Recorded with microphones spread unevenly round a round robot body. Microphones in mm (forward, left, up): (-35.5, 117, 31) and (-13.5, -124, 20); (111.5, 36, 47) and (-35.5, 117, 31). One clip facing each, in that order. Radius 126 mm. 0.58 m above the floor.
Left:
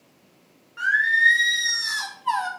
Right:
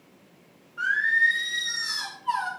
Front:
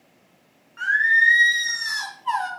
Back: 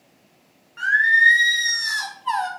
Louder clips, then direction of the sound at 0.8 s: Left 3 dB, back 2 dB; 100° left.